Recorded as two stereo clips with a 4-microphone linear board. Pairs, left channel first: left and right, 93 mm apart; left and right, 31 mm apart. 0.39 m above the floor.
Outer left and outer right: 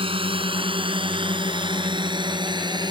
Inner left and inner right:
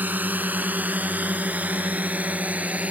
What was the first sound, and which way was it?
A drone, 70° right (ahead or behind).